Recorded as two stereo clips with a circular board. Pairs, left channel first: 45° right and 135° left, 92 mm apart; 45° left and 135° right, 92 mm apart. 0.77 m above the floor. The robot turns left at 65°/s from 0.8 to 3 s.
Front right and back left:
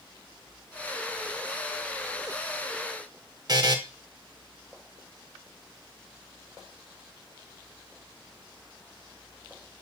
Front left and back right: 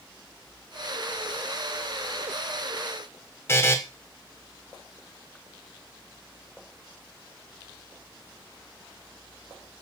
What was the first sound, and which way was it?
A buzzer, 100° left.